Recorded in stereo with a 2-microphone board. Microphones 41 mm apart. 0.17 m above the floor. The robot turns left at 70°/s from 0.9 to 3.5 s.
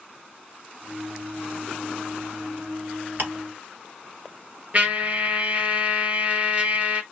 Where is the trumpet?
40° right (ahead or behind), 0.9 m.